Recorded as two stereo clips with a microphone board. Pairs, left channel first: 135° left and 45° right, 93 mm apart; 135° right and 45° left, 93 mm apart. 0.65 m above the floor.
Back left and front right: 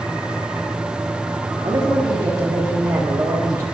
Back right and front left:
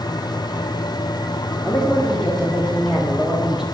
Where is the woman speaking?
50° right, 2.0 m; by 3.6 s 30° right, 1.2 m.